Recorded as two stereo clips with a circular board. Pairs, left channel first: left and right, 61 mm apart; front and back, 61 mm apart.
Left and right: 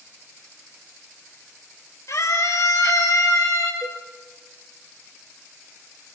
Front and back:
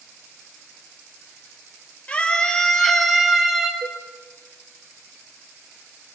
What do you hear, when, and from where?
2.1 s a scream: 70° left, 4 m; by 3.7 s 100° left, 4.5 m
3.8 s a cowbell: 125° right, 1.3 m